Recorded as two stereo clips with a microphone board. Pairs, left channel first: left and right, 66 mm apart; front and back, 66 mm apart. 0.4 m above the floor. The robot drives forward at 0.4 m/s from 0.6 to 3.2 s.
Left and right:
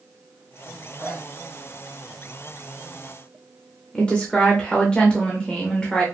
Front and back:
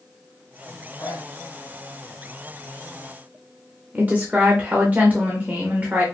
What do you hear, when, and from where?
1.0 s a zipper: straight ahead, 1.7 m
3.9 s a woman speaking: 150° left, 0.8 m